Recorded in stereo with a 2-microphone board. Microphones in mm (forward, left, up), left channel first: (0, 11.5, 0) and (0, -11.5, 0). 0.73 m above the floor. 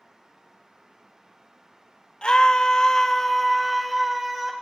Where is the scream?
40° left (ahead or behind), 0.8 m; by 4.5 s 20° right (ahead or behind), 0.9 m.